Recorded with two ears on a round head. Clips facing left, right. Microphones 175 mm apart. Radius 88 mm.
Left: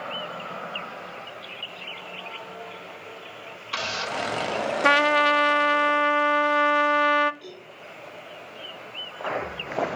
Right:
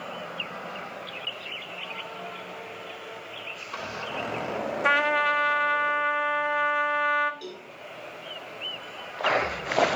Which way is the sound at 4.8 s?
50° left (ahead or behind).